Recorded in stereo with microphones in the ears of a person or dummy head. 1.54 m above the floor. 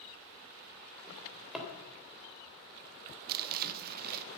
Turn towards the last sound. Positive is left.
turn(degrees=-55)  # may be behind; listen again after turning